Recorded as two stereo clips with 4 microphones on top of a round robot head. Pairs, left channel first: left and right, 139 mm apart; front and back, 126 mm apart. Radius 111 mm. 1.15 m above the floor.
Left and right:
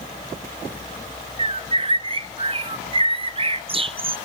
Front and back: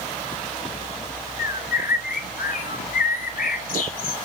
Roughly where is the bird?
Ahead right.